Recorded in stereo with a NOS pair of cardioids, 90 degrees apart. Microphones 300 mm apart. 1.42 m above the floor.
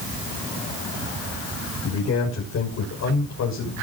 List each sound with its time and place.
1.8 s a man speaking: 60° left, 6 m